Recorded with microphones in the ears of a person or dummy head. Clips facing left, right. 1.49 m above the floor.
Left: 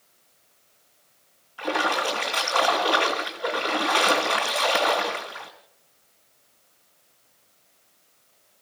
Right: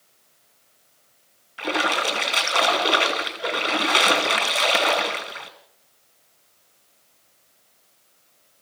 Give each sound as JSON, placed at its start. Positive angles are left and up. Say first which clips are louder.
{"t": 1.6, "sound": "a splash", "louder": "right 1 dB", "side_deg": -30, "distance_m": 2.5}